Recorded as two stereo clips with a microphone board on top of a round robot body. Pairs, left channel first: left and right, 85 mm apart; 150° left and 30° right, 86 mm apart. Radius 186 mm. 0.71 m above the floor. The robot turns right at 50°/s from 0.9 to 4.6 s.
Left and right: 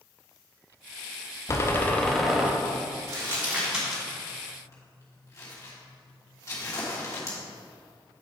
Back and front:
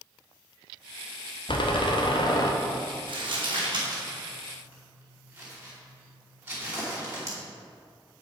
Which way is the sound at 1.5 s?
140° left.